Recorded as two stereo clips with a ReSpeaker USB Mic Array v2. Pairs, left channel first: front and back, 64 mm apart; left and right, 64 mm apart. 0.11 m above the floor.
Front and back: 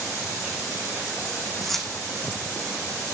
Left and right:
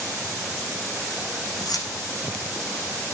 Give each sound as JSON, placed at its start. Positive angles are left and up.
{"t": 1.6, "sound": "keys jangling", "azimuth_deg": 85, "distance_m": 4.5}